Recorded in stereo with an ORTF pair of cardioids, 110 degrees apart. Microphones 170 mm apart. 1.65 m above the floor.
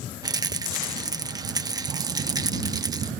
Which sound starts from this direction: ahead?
A rattle, at 0.2 s.